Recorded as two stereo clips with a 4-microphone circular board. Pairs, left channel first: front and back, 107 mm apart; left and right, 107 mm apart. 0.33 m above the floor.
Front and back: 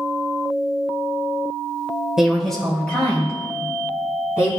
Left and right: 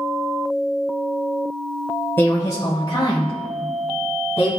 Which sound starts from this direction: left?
A woman speaking, at 2.2 s.